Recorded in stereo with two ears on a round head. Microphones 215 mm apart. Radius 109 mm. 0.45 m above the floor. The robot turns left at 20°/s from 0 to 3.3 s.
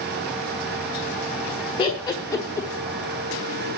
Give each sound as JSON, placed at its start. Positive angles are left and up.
{"t": 1.8, "sound": "laughter", "side_deg": 20, "distance_m": 1.4}